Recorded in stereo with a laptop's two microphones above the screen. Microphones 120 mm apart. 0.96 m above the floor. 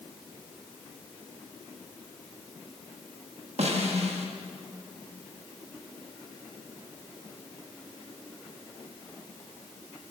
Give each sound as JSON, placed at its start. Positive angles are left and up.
{"t": 3.6, "sound": "a snare drum", "side_deg": -70, "distance_m": 0.9}